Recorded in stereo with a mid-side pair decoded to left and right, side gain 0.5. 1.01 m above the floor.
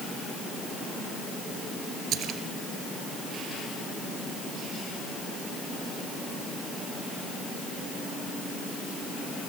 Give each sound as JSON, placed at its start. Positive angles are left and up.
{"t": 2.1, "sound": "a splash", "azimuth_deg": -65, "distance_m": 3.0}